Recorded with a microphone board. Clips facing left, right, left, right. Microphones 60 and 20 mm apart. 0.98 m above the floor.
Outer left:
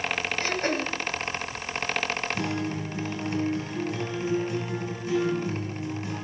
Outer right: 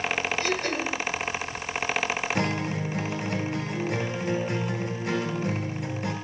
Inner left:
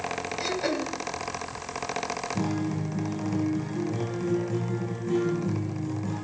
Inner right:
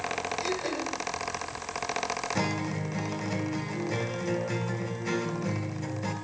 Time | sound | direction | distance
0.4 | throat clearing | 40° left (ahead or behind) | 1.3 m
2.4 | a guitar | 75° right (ahead or behind) | 2.5 m